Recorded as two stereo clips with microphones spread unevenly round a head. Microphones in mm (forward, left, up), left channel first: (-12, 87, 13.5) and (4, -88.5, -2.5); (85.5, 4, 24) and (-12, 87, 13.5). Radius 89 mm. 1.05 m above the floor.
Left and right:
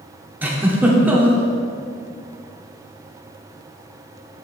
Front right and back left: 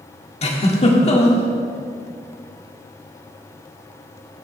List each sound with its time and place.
0.4 s a giggle: 5° right, 1.6 m